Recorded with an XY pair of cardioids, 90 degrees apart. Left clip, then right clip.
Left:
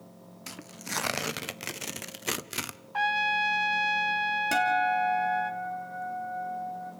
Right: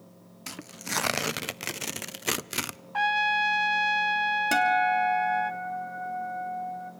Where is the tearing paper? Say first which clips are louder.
Right 3 dB; 25° right, 0.7 m.